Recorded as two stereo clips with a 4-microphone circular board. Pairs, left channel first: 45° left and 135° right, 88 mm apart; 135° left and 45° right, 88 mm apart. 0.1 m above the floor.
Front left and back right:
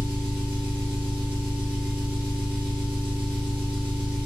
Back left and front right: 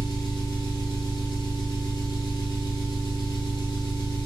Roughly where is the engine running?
Behind left.